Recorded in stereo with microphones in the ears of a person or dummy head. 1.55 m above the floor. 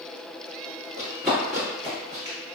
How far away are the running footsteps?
About 1.6 m.